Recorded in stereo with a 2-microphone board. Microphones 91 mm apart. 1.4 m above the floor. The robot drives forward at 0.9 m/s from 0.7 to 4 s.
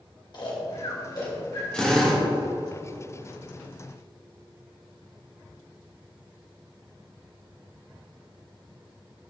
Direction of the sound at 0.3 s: 55° left (ahead or behind).